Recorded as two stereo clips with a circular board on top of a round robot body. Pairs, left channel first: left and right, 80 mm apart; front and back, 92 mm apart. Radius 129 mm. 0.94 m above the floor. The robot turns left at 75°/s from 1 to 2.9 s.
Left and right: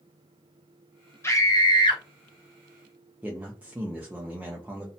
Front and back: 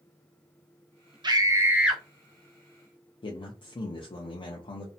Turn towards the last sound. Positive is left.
turn(degrees=-15)